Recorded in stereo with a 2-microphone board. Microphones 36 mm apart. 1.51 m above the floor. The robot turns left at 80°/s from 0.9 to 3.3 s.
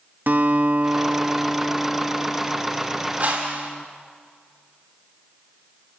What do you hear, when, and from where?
0.3 s a guitar: 120° right, 1.5 m; by 3.9 s 45° left, 1.5 m
3.2 s a whoosh: 55° right (ahead or behind), 5 m; by 3.7 s 50° right (ahead or behind), 5 m